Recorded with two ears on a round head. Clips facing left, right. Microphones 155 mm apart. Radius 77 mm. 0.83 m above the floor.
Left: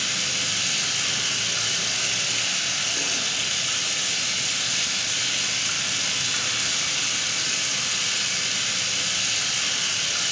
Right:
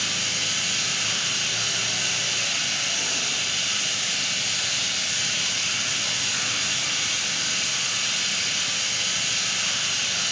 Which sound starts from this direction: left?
Running water, at 0.0 s.